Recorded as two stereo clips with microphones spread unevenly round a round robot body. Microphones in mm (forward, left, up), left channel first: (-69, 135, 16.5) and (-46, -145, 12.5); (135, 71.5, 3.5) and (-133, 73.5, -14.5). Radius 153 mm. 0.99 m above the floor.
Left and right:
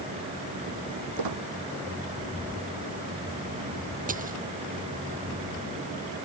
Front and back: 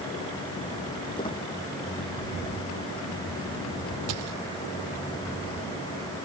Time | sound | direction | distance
1.2 | a squeak | 75° right | ?
4.1 | a dropped coin | 145° right | ?